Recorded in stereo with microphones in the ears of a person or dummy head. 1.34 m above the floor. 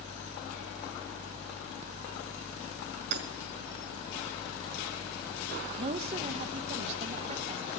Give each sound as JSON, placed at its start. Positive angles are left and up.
{"t": 3.1, "sound": "hammering", "side_deg": -60, "distance_m": 1.8}
{"t": 5.8, "sound": "a woman speaking", "side_deg": -35, "distance_m": 0.8}